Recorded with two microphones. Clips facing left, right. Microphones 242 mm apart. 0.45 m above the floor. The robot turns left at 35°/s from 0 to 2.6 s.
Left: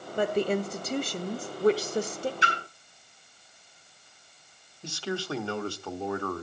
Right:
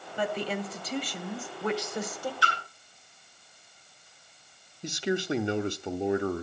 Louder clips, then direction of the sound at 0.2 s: Left 6 dB; 105° left.